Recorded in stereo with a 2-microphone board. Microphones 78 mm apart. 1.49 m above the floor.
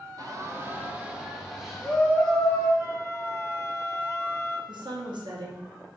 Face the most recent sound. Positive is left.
turn(degrees=-80)